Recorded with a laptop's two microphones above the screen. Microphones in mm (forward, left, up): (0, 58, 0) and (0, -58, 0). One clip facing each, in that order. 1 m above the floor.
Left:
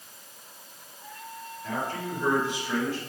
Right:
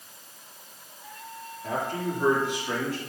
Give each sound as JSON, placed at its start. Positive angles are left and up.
{"t": 1.6, "sound": "a man speaking", "side_deg": -45, "distance_m": 2.5}